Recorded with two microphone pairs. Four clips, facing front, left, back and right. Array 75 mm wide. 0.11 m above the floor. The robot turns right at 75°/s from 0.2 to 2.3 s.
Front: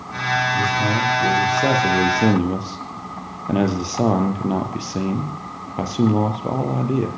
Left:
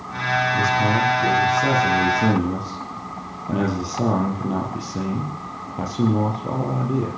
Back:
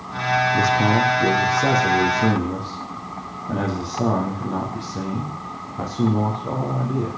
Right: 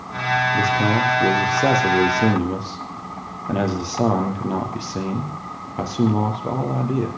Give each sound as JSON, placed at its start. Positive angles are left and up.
{"t": 0.5, "sound": "a man speaking", "azimuth_deg": -155, "distance_m": 3.0}